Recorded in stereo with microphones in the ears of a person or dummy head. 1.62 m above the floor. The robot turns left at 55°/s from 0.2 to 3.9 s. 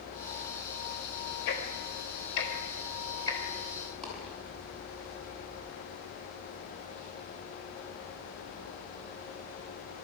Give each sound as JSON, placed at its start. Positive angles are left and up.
{"t": 1.5, "sound": "ticking", "side_deg": 60, "distance_m": 4.0}
{"t": 4.0, "sound": "a dropped coin", "side_deg": 0, "distance_m": 7.0}